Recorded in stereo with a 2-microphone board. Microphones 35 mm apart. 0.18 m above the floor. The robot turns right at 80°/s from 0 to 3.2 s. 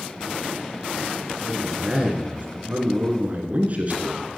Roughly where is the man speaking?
Behind.